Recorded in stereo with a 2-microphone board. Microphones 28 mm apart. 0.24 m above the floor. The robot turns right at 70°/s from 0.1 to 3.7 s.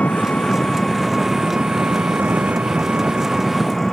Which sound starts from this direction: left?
An engine running, at 0.0 s.